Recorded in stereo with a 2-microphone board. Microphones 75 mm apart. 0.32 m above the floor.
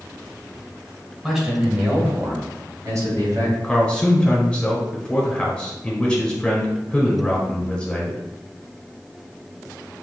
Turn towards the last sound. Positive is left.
turn(degrees=10)  # may be behind; listen again after turning